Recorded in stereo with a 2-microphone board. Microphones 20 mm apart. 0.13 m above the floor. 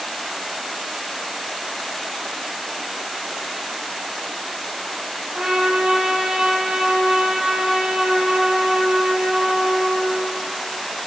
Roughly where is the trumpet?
Right.